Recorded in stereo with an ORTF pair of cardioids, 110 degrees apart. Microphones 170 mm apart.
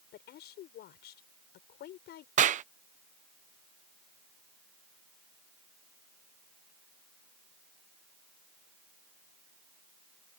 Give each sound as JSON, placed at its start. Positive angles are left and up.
{"t": 0.1, "sound": "a woman speaking", "azimuth_deg": 70}
{"t": 2.4, "sound": "a clap", "azimuth_deg": -45}